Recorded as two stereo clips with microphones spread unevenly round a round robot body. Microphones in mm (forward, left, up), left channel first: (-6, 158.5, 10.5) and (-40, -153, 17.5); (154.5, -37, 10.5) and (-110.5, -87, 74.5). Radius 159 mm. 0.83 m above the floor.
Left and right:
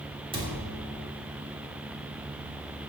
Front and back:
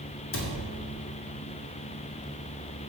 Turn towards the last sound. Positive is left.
turn(degrees=-20)